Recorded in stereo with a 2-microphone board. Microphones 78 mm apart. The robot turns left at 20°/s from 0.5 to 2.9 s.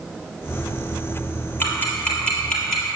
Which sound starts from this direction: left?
Ticking, at 1.6 s.